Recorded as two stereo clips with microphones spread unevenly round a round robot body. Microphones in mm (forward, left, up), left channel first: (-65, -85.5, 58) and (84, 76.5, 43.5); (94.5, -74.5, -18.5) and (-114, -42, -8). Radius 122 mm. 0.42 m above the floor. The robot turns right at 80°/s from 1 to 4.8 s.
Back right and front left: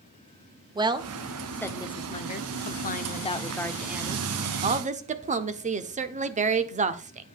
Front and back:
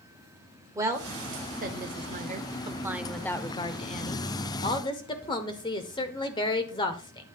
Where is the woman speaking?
95° left, 0.8 m; by 7.3 s 40° left, 0.8 m.